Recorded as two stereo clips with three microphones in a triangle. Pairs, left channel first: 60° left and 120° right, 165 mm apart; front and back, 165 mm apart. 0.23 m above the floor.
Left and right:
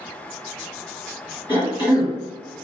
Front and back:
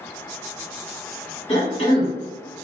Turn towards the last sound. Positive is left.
turn(degrees=20)